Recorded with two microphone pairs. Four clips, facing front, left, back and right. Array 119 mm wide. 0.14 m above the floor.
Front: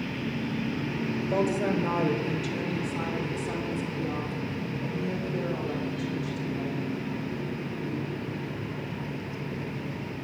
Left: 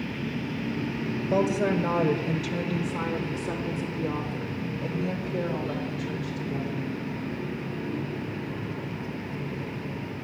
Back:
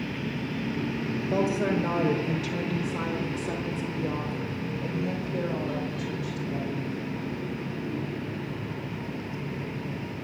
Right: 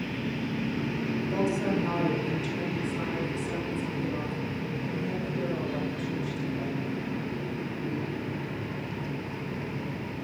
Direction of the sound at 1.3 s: 110° left.